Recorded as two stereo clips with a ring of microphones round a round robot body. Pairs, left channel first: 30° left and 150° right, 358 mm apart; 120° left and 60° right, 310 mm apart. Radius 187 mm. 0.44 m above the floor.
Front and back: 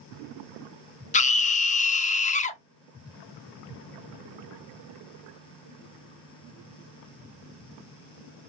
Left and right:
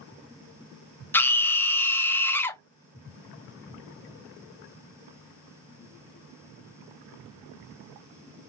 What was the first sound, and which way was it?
A scream, 50° left.